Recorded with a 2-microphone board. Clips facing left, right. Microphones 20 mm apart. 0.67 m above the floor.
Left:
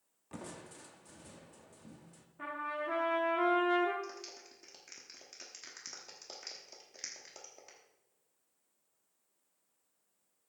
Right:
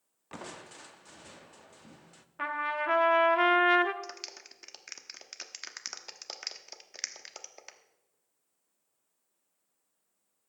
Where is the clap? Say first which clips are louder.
Right 3 dB; 35° right (ahead or behind), 1.0 m.